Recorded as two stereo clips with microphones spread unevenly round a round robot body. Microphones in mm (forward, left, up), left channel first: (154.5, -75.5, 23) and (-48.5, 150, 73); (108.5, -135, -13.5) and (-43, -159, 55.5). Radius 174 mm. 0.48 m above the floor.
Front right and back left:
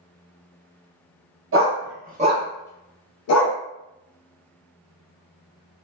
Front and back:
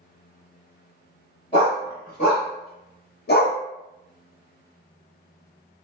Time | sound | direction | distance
1.5 | a dog barking | 85° left | 1.0 m